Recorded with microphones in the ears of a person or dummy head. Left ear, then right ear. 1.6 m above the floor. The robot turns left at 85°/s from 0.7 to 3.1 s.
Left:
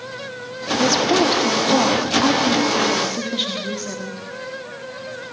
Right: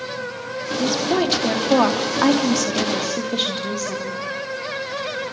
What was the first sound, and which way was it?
A woman speaking, 30° left.